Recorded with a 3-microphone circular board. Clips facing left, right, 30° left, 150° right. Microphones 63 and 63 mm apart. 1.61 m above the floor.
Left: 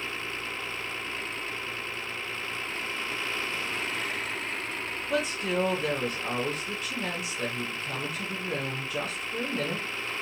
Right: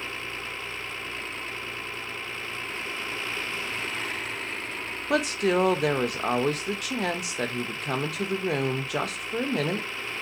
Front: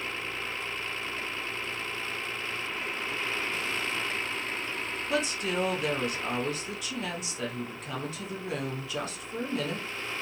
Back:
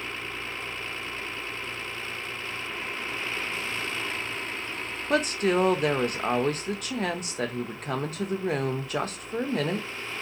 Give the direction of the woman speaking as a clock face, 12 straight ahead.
4 o'clock.